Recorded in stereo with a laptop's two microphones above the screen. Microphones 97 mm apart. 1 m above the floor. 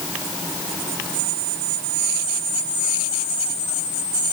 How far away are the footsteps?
I don't hear footsteps.